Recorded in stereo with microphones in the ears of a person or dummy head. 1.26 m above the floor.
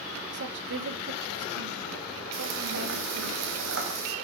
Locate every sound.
0.3 s a woman speaking: 65° right (ahead or behind), 2 m
2.3 s frying: 80° right, 3.5 m